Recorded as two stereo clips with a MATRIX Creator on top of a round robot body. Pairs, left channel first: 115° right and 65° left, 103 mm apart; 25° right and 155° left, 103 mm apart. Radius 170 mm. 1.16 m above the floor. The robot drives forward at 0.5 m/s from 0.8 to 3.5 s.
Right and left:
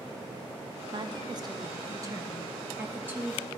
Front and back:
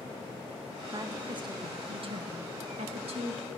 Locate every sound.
0.9 s a woman speaking: 110° left, 1.4 m; by 3.5 s 140° left, 2 m